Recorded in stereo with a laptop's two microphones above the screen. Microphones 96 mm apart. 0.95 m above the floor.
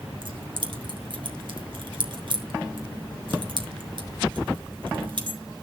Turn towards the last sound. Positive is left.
turn(degrees=-60)  # may be behind; listen again after turning